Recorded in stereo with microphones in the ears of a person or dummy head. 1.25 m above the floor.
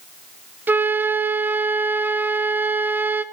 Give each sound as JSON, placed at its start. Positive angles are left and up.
{"t": 0.7, "sound": "a flute", "side_deg": -10, "distance_m": 0.7}